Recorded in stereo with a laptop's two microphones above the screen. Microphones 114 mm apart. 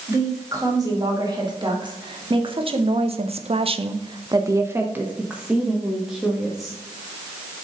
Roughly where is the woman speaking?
Right.